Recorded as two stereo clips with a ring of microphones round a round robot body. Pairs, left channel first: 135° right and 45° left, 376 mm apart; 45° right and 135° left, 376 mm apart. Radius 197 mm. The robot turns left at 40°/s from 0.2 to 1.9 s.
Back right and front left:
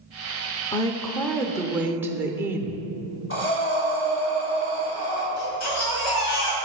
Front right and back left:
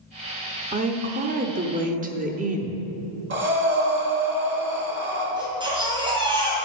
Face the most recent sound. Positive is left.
turn(degrees=-150)